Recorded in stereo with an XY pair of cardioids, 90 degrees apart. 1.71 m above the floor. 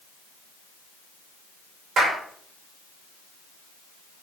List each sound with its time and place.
2.0 s a clap: 65° right, 5.5 m